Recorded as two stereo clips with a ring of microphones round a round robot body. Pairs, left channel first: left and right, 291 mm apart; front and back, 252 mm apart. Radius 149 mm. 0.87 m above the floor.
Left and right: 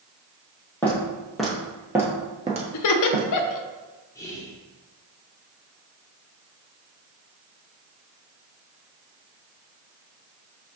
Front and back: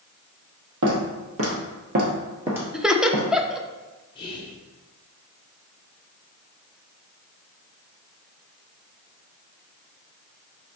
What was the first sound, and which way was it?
Footsteps, 175° left.